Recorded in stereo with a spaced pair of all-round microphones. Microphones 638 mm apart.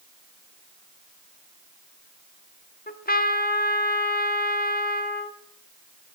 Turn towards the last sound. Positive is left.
turn(degrees=15)  # may be behind; listen again after turning